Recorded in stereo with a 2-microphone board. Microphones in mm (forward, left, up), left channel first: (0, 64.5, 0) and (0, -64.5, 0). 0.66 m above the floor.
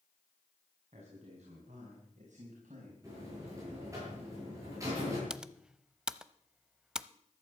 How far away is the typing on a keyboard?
About 0.6 m.